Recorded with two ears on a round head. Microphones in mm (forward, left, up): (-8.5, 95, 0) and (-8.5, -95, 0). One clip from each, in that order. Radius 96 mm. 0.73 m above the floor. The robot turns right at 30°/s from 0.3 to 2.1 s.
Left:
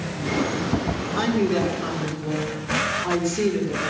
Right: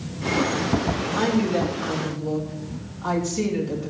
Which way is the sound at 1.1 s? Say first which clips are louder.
Left 1 dB; 5° right (ahead or behind).